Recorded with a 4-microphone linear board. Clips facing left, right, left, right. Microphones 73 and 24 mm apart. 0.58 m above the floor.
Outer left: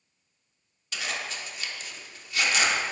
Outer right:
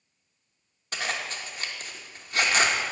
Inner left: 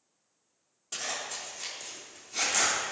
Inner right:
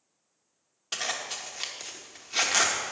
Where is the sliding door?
I don't hear a sliding door.